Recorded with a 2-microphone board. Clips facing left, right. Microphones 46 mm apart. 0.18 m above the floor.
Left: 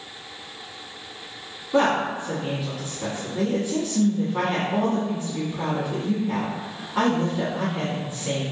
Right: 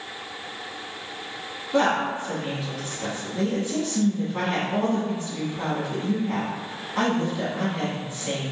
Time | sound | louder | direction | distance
1.7 | a woman speaking | left 1 dB | 10° left (ahead or behind) | 1.2 m